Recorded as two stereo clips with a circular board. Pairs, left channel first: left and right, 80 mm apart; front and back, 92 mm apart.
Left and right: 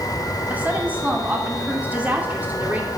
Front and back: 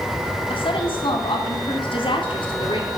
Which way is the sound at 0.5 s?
20° right.